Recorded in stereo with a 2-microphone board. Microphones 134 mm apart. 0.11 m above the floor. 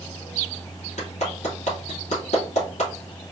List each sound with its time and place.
1.0 s a clap: 65° left (ahead or behind), 3 m